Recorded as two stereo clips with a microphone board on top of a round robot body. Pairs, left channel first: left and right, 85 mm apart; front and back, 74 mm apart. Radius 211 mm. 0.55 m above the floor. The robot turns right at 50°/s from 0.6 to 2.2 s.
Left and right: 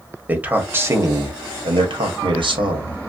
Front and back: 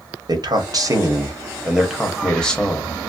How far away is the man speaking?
About 1.5 m.